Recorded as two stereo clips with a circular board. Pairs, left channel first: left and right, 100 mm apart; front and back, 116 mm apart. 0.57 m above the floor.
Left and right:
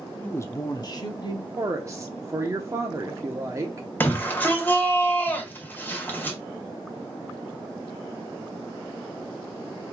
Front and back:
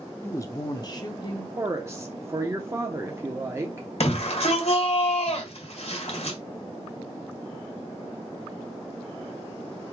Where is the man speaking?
40° left, 0.6 m; by 1.5 s 50° left, 1.9 m.